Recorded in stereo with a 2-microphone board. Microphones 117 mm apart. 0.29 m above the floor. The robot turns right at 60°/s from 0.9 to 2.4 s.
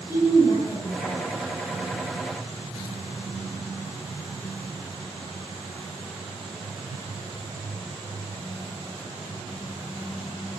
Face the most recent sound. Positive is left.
turn(degrees=-175)